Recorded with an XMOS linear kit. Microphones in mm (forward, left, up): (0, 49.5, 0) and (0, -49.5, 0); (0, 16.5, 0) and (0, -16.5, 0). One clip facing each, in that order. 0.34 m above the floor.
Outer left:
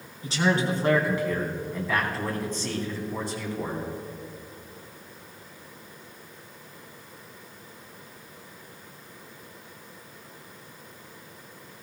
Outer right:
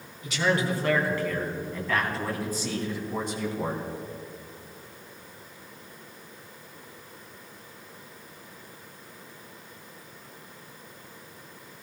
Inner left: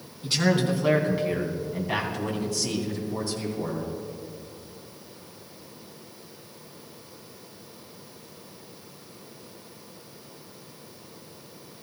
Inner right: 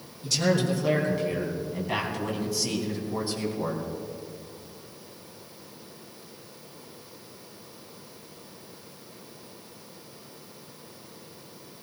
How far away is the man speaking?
About 3.5 m.